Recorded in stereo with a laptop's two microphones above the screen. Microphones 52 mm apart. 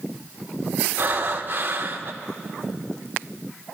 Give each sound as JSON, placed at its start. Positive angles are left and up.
{"t": 1.0, "sound": "breathing", "side_deg": -40, "distance_m": 2.0}